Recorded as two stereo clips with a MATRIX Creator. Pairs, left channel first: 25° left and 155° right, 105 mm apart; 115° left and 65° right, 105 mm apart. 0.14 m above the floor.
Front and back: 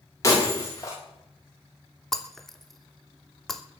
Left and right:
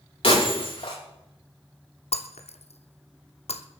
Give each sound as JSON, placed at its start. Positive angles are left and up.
{"t": 0.2, "sound": "breaking glass", "azimuth_deg": 80, "distance_m": 9.5}
{"t": 2.1, "sound": "breaking glass", "azimuth_deg": 110, "distance_m": 1.3}